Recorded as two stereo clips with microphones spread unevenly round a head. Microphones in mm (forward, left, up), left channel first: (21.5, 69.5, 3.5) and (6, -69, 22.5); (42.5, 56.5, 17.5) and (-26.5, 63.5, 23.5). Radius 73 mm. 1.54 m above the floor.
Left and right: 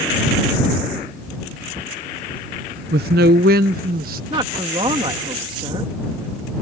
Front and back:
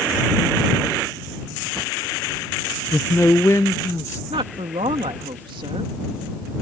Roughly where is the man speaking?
Right.